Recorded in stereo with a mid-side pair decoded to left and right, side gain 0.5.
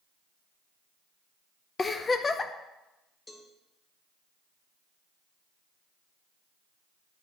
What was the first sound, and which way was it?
A giggle, 30° left.